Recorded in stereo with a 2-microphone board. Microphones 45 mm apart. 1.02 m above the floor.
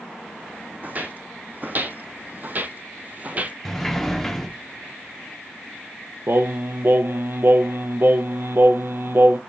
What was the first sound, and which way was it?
Footsteps, 35° right (ahead or behind).